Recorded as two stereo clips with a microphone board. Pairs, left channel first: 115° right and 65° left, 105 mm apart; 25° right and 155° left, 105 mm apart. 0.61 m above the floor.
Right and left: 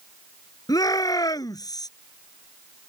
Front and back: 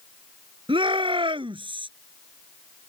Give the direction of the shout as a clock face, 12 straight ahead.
6 o'clock.